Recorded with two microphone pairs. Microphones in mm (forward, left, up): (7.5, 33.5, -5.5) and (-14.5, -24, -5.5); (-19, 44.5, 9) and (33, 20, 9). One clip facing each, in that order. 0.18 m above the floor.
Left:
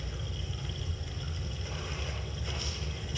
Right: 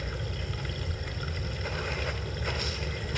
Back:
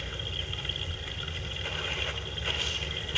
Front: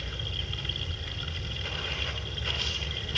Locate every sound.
0.0 s running water: 120° right, 1.4 m